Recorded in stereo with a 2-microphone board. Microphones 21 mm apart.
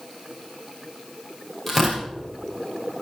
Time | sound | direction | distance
1.7 | tearing paper | centre (ahead or behind) | 5 m